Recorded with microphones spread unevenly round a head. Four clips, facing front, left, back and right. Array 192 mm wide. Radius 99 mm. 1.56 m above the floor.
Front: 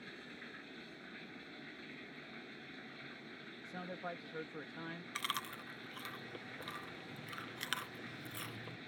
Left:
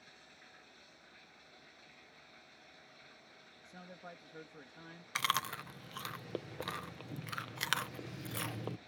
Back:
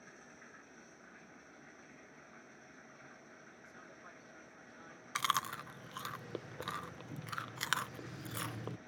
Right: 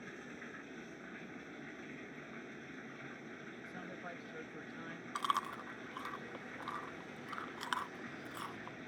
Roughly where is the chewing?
Behind left.